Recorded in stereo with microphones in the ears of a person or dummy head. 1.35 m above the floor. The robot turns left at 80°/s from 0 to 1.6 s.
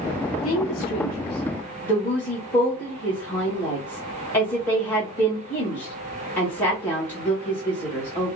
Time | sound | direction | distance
0.4 | a woman speaking | 75° left (ahead or behind) | 2 m